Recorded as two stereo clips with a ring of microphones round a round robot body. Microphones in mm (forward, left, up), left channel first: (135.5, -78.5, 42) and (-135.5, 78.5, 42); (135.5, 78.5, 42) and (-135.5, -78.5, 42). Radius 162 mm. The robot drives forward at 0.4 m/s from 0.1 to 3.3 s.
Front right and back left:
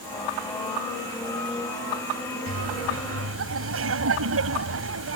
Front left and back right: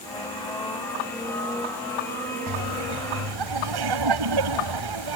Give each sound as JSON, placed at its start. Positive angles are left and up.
{"t": 2.5, "sound": "laughter", "azimuth_deg": -160}